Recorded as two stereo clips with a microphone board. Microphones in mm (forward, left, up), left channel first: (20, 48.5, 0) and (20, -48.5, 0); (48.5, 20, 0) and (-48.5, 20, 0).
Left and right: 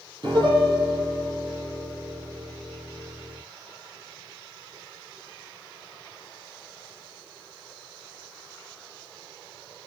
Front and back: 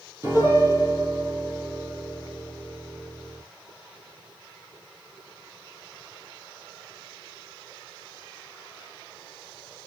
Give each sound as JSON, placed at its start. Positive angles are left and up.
{"t": 0.2, "sound": "a piano", "azimuth_deg": -120, "distance_m": 7.0}